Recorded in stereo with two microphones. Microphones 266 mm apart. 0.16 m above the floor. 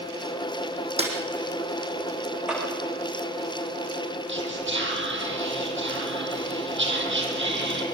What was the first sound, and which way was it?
A snare drum, 25° right (ahead or behind).